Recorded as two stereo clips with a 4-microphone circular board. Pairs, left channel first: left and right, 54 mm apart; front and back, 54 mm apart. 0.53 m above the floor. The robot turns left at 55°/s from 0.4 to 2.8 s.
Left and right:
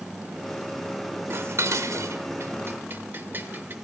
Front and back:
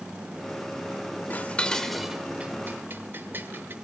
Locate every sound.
1.3 s dishes clattering: 50° right, 1.1 m; by 3.8 s 135° right, 1.1 m